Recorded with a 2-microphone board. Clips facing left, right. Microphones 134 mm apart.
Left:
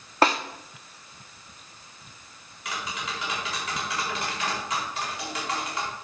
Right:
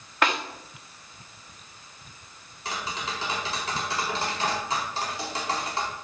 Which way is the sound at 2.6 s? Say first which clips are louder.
Right 1 dB; 35° right (ahead or behind).